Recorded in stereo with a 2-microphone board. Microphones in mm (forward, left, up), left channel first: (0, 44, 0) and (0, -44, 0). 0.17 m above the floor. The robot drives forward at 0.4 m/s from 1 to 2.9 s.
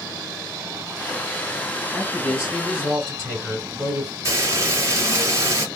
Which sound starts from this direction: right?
Frying, at 4.2 s.